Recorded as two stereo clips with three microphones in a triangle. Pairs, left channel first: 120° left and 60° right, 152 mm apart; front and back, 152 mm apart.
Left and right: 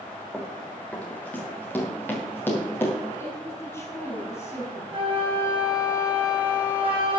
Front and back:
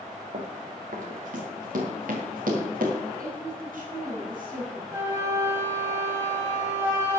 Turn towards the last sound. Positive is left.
turn(degrees=-110)